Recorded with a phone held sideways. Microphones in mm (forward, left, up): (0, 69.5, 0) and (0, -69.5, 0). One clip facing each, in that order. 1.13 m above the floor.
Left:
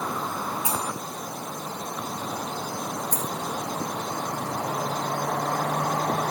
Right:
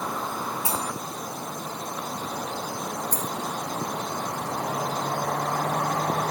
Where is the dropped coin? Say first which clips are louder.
Even; 65° right (ahead or behind), 3 m.